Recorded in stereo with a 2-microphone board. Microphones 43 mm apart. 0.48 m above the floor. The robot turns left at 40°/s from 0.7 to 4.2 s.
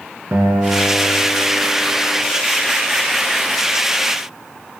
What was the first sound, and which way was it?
A guitar, 65° right.